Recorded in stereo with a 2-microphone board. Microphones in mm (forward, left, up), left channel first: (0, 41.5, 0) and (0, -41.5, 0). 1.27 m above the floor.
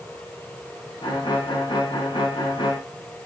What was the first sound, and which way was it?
A violin, 70° left (ahead or behind).